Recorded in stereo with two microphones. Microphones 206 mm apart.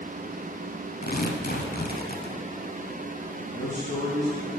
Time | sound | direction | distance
1.0 | tearing paper | 55° left (ahead or behind) | 0.8 m
3.5 | a man speaking | 40° left (ahead or behind) | 2.5 m